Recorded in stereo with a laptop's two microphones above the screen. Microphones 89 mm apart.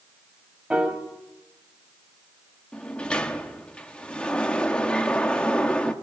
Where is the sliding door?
15° left (ahead or behind), 1.0 m.